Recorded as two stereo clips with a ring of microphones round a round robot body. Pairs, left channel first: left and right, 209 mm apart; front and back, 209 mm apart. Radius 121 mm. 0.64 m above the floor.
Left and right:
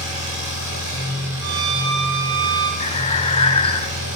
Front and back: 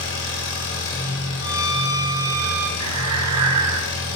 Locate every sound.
0.0 s an engine running: 25° right, 4.5 m
1.4 s a violin: 105° right, 1.9 m
2.8 s breathing: 155° left, 0.6 m